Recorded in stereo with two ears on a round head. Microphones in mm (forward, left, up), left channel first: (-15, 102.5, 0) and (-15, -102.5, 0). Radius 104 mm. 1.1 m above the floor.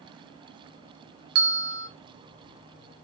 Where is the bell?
45° right (ahead or behind), 0.6 m.